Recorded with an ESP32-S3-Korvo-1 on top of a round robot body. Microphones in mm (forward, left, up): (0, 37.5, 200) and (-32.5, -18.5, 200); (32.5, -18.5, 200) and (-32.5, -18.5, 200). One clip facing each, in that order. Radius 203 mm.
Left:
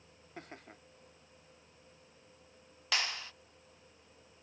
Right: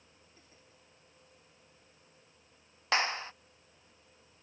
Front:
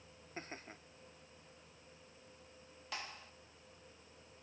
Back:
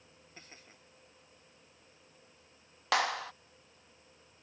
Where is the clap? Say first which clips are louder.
Right 6 dB, back 18 dB; straight behind.